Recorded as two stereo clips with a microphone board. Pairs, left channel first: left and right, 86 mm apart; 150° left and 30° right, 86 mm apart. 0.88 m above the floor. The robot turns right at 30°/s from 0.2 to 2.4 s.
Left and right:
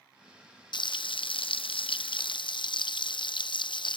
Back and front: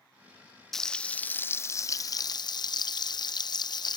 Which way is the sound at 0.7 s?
65° left.